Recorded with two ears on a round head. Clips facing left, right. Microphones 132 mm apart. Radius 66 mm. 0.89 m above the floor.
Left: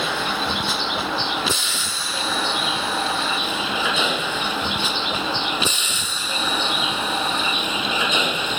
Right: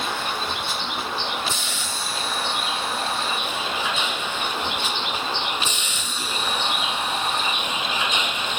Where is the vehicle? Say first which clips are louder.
Left 3 dB; 60° left (ahead or behind); by 8.6 s 70° left (ahead or behind).